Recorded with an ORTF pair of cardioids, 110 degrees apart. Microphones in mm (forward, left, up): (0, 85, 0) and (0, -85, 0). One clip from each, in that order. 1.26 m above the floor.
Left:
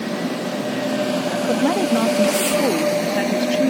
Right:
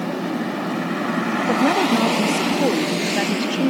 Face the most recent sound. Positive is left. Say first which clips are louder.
# right 1 dB
turn(degrees=0)